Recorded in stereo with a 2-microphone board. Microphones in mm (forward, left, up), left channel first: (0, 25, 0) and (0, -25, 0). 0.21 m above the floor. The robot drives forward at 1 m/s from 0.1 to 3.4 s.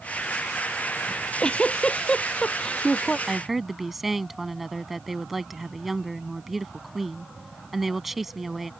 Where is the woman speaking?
5° right (ahead or behind).